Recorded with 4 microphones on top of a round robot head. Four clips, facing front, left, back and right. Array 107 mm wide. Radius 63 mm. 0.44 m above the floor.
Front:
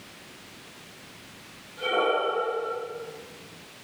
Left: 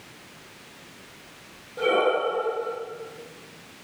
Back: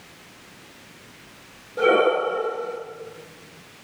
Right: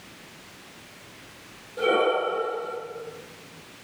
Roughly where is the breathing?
Behind.